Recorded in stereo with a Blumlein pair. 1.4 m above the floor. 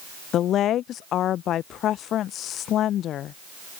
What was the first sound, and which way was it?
A woman speaking, 30° left.